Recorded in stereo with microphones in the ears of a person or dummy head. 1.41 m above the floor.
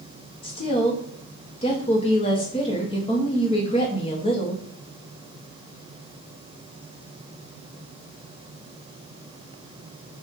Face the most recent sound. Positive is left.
turn(degrees=20)  # may be behind; listen again after turning